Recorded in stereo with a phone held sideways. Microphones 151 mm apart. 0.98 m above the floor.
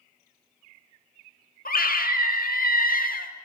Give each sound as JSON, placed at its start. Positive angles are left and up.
{"t": 1.6, "sound": "a scream", "side_deg": 75, "distance_m": 1.7}